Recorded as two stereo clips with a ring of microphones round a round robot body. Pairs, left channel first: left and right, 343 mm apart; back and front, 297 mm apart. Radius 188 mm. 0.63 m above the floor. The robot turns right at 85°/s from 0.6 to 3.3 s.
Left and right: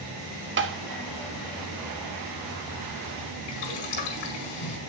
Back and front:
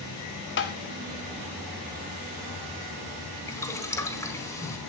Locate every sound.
0.6 s tapping: 140° right, 1.8 m; by 0.8 s 125° right, 1.8 m
3.5 s boiling: 100° left, 4.5 m